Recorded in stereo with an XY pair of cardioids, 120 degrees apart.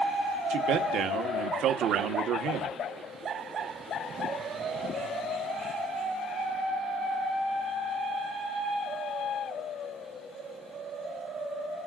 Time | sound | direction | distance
0.5 | a man speaking | 65° right | 1.4 m